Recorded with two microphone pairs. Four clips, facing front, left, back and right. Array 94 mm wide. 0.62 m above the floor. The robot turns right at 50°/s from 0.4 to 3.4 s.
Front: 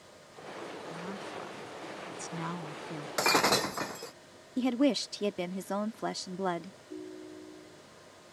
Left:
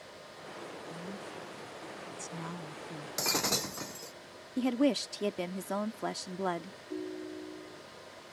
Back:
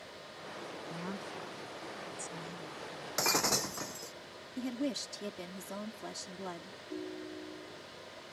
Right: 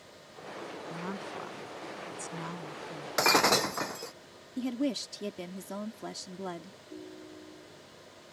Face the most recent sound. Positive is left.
turn(degrees=100)